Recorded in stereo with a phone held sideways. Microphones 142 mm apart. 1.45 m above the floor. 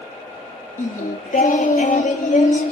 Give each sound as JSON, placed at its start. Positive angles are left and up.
{"t": 0.8, "sound": "singing", "side_deg": 60, "distance_m": 2.5}